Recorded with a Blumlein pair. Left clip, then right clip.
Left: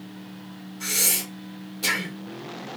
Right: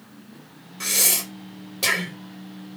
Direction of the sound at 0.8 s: 60° right.